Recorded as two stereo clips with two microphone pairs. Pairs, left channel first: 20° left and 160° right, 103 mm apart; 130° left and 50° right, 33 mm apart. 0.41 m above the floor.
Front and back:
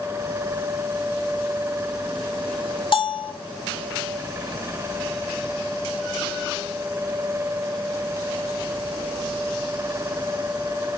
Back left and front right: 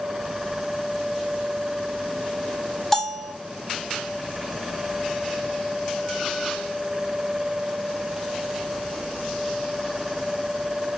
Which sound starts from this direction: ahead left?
A bell, at 2.9 s.